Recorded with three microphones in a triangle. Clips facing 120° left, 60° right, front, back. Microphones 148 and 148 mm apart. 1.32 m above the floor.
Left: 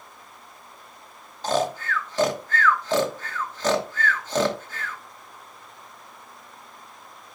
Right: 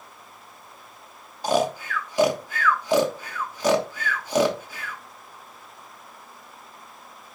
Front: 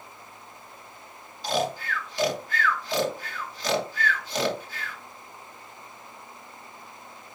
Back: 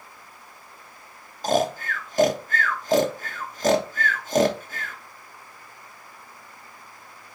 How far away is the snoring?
About 1.3 m.